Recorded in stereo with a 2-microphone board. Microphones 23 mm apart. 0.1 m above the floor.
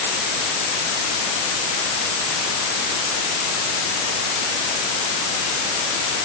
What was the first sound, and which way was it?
Only background noise.